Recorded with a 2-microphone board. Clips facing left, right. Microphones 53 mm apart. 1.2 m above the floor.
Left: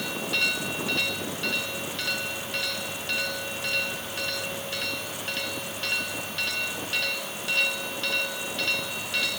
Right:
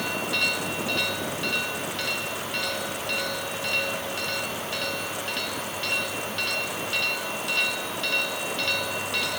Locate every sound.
Only background noise.